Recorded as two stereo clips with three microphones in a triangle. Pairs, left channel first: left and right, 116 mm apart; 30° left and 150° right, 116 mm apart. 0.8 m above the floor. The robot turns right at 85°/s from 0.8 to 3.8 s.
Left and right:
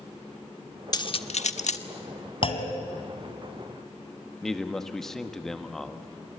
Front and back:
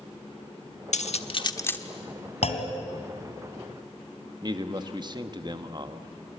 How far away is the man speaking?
About 1.4 m.